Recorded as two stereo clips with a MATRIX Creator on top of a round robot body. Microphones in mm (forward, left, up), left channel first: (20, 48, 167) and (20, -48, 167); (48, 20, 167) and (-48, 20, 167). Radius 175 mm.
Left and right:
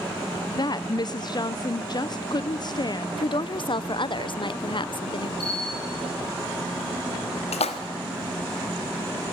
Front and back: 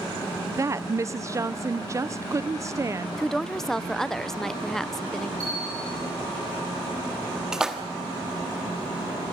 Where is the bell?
125° left, 5 m.